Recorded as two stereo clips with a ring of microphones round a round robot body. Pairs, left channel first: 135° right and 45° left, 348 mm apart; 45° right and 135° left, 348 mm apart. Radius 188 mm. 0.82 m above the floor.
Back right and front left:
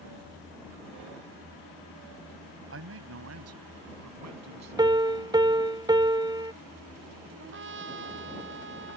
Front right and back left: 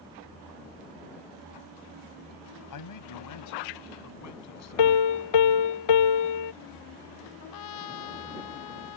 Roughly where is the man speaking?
Ahead.